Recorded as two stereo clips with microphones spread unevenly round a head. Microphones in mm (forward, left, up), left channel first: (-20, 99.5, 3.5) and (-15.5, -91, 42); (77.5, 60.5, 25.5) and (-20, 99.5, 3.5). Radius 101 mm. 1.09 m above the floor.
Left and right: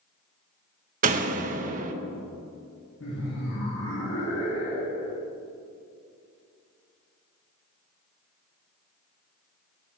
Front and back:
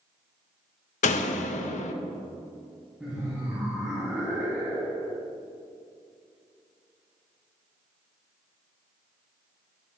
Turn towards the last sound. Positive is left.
turn(degrees=75)